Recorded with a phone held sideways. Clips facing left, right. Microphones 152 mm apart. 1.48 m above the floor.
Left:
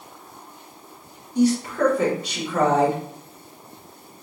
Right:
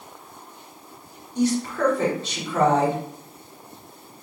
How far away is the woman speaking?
About 1.9 m.